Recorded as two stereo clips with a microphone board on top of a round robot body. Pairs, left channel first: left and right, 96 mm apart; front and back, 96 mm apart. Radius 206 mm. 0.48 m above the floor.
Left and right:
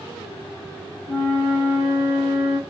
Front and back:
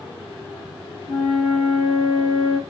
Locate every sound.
1.1 s a flute: 20° left, 1.4 m